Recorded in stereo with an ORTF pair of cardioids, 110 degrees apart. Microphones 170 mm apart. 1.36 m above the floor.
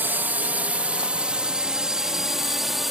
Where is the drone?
10° right; by 2.9 s straight ahead.